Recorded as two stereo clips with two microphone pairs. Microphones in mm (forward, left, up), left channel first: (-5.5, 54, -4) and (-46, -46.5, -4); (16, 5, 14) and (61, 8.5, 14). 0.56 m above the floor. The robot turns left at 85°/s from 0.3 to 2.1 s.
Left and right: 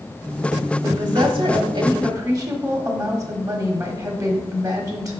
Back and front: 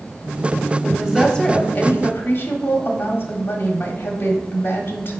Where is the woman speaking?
55° right, 1.2 m; by 5.2 s 160° right, 1.2 m.